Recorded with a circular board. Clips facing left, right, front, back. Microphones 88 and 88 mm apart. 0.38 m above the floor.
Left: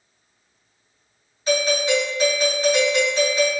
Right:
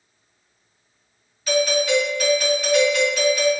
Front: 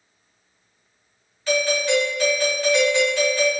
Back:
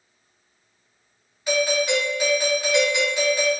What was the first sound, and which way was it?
A doorbell, 120° left.